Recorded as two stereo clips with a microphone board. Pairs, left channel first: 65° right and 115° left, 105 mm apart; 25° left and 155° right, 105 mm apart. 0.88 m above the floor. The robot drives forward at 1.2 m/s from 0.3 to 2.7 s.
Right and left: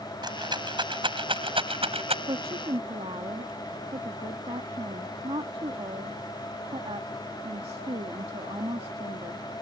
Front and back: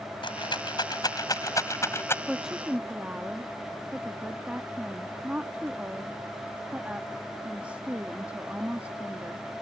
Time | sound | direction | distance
0.2 | a rattle | 65° left | ?
2.3 | a woman speaking | 110° left | ?